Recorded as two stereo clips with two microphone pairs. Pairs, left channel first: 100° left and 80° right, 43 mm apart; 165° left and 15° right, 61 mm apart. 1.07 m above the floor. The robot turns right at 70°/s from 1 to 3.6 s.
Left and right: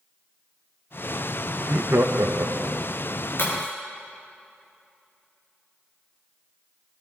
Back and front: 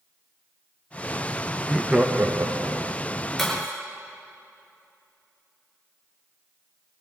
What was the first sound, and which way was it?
Laughter, 115° right.